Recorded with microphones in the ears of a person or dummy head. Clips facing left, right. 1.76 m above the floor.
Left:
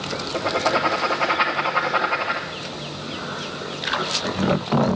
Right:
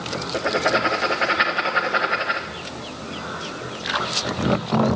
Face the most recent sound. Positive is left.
turn(degrees=-10)  # may be behind; listen again after turning